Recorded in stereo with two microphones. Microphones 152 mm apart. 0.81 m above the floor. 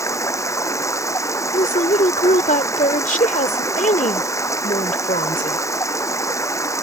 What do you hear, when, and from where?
0.0 s running water: 20° left (ahead or behind)
1.5 s a woman speaking: 65° left (ahead or behind)